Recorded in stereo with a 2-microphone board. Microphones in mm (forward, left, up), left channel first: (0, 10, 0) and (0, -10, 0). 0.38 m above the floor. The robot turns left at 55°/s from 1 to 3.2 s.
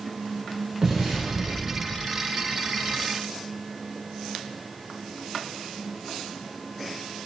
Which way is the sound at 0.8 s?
15° right (ahead or behind).